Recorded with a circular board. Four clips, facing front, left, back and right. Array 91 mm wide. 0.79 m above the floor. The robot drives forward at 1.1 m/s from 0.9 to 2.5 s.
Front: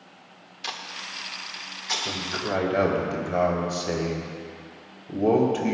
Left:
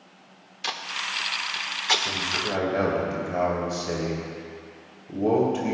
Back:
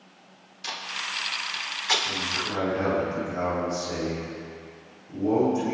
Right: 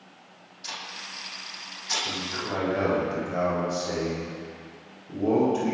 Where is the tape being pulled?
75° left, 1.5 m; by 1.9 s 120° left, 1.6 m.